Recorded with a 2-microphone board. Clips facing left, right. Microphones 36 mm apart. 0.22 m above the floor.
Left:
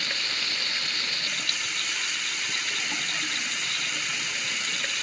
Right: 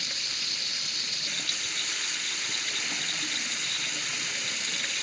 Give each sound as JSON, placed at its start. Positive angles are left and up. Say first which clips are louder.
{"t": 0.0, "sound": "running water", "louder": "left 5 dB", "side_deg": 40, "distance_m": 1.0}